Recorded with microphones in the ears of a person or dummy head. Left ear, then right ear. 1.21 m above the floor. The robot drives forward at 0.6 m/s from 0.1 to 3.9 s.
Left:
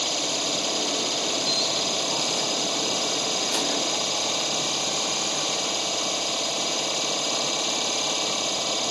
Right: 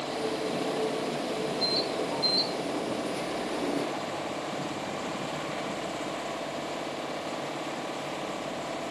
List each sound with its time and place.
0.0 s an engine running: 85° left